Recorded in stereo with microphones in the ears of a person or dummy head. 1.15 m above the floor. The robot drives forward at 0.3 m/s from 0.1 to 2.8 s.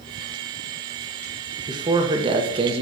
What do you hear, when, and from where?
1.7 s a man speaking: 25° right (ahead or behind), 1.0 m; by 2.8 s 35° right (ahead or behind), 0.8 m